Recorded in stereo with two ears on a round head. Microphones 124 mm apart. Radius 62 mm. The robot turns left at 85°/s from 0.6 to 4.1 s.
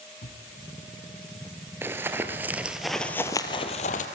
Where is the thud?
65° left (ahead or behind), 3.5 m.